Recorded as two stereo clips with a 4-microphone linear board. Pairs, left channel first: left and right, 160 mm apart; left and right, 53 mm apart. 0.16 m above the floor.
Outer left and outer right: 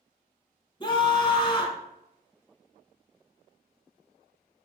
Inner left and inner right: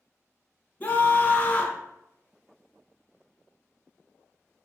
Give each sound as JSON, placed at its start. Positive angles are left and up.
{"t": 0.8, "sound": "a scream", "side_deg": 30, "distance_m": 1.2}